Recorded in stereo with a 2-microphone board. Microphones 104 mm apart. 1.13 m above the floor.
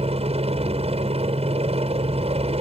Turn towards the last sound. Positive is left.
turn(degrees=-75)  # may be behind; listen again after turning